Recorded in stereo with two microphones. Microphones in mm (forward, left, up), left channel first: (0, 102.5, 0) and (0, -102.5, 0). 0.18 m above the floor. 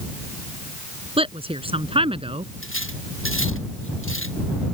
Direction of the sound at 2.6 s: 80° left.